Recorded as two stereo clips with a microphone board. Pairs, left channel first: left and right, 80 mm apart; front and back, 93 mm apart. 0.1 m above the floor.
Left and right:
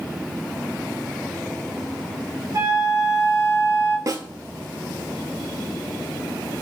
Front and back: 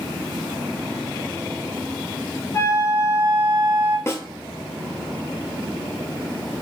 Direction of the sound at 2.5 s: 50° right.